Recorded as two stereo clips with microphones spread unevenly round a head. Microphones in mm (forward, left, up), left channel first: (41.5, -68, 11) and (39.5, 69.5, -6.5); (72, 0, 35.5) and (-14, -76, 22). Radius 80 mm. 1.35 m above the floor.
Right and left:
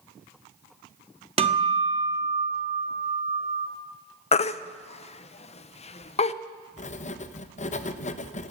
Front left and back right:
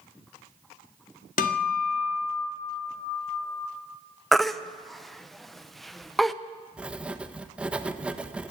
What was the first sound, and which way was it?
A guitar, 45° left.